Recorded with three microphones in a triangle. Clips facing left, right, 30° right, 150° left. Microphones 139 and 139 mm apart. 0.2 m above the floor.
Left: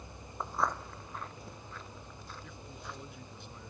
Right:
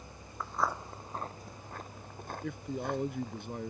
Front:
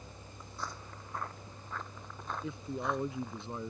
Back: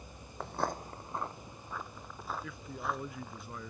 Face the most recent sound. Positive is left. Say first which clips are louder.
# right 16 dB, front 7 dB
turn(degrees=-90)